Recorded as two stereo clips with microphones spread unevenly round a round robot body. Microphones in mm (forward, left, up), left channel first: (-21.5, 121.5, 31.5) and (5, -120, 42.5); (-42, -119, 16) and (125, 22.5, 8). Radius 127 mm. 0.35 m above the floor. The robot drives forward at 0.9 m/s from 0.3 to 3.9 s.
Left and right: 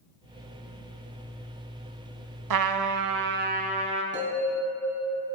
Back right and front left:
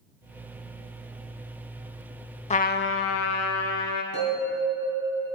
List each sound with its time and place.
2.5 s a trumpet: 75° right, 0.7 m; by 4.0 s 150° right, 1.3 m
4.1 s a bell: 145° right, 4 m